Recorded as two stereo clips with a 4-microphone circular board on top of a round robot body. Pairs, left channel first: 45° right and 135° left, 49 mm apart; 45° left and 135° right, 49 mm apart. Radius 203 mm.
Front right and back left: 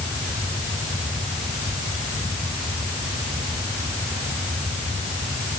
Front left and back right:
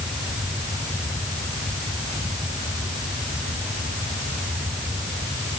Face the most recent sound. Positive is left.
No sound to turn to.